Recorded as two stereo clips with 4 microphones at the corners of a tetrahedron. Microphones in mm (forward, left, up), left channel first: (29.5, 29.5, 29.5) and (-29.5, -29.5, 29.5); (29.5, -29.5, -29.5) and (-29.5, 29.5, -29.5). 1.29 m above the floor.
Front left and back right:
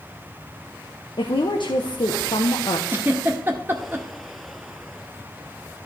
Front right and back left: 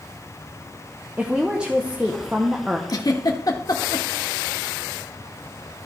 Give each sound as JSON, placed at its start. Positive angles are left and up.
{"t": 1.2, "sound": "a woman speaking", "azimuth_deg": 60, "distance_m": 1.0}
{"t": 2.9, "sound": "a giggle", "azimuth_deg": -75, "distance_m": 1.3}